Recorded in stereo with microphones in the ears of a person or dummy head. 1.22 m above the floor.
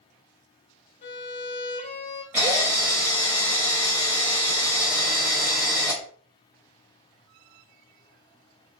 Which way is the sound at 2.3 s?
5° right (ahead or behind).